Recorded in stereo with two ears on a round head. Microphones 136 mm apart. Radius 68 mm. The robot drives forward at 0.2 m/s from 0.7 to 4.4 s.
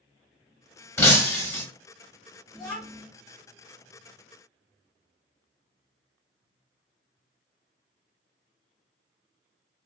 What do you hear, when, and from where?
1.0 s breaking glass: 15° left (ahead or behind), 0.7 m
2.5 s a child speaking: 5° right (ahead or behind), 0.6 m